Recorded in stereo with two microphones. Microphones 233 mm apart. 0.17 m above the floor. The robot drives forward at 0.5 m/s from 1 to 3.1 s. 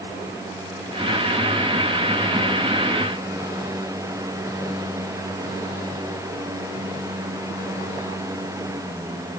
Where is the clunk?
I don't hear a clunk.